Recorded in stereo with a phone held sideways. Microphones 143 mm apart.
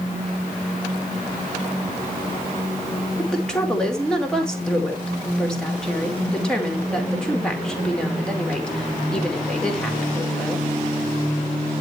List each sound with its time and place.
3.2 s a woman speaking: 5° left (ahead or behind), 2.5 m